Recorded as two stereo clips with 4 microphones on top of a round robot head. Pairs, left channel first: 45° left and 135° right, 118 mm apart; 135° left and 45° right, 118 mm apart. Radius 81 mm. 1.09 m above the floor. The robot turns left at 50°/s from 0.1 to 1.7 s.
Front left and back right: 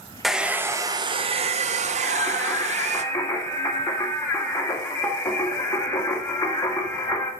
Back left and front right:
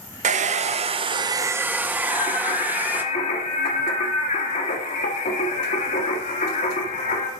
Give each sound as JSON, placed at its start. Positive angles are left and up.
{"t": 0.2, "sound": "a hair dryer", "azimuth_deg": -45, "distance_m": 0.8}
{"t": 2.0, "sound": "singing", "azimuth_deg": 115, "distance_m": 1.7}